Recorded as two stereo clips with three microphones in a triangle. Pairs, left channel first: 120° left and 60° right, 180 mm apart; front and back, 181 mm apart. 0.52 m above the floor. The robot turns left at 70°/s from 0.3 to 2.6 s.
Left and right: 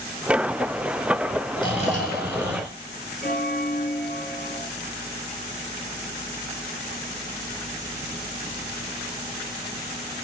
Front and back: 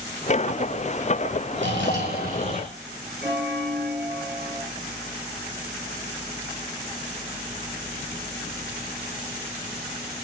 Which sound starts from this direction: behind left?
A bell, at 3.2 s.